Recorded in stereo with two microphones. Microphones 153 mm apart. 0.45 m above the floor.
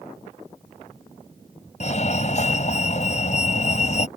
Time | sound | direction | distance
1.8 | a fire alarm | 50° left (ahead or behind) | ?